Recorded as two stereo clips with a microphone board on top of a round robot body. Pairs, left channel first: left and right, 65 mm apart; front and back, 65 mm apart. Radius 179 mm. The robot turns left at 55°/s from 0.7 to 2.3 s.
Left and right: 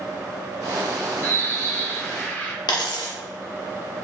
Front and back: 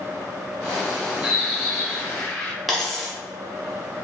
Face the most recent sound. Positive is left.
turn(degrees=90)